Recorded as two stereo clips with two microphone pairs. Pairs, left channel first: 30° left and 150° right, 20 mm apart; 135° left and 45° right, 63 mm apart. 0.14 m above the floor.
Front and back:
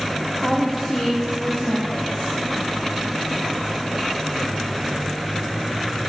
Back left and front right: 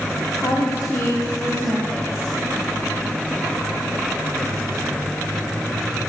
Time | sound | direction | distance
0.4 | a woman speaking | 105° left | 8.5 m